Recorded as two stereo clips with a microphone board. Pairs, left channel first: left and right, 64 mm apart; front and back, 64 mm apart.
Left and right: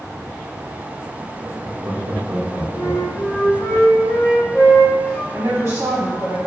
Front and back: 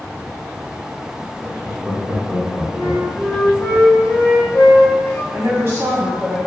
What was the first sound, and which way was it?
Laughter, 65° right.